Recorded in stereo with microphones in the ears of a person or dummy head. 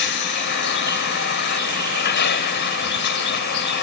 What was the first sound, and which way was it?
A vehicle, 50° left (ahead or behind).